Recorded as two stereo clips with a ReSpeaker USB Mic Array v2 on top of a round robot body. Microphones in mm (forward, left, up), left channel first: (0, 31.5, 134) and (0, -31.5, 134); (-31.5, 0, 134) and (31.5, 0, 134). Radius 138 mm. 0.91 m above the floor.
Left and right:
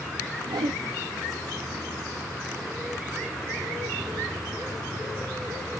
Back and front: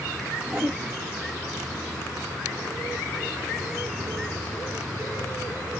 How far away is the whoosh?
About 0.6 m.